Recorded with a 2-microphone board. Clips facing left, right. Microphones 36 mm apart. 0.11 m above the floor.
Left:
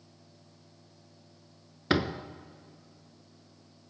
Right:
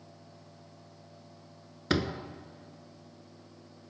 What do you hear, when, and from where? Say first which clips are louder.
1.9 s a door slam: left 2 dB; 15° left (ahead or behind), 0.9 m